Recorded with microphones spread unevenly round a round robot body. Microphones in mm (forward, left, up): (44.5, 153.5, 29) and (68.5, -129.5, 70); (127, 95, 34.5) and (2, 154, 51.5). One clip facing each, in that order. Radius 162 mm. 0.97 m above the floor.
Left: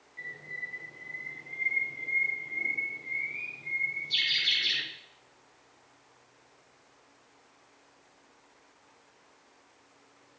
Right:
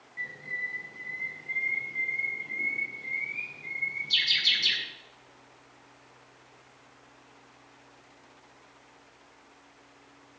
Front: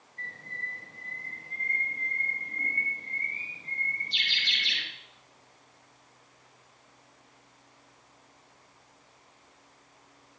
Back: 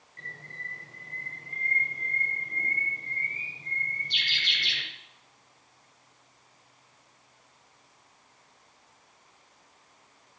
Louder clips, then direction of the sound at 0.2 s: Right 2 dB, front 2 dB; 155° right.